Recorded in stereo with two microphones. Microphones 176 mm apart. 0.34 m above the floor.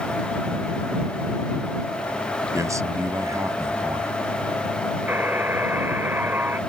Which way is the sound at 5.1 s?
15° right (ahead or behind).